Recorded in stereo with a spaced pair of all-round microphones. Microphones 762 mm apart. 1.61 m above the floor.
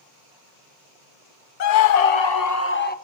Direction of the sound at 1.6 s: 65° left (ahead or behind).